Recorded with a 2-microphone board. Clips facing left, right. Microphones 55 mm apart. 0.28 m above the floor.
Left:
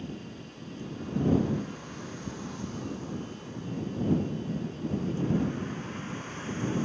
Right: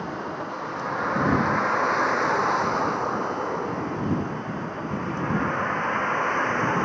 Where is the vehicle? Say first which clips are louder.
Right 11 dB; 85° right; by 6.9 s 60° right (ahead or behind).